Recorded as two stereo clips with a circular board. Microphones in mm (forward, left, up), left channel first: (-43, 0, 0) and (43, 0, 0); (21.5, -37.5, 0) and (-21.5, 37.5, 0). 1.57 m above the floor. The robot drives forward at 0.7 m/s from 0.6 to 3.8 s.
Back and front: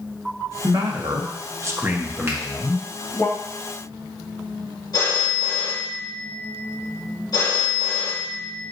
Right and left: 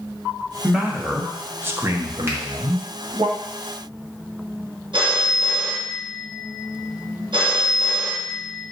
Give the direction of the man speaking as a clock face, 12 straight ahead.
11 o'clock.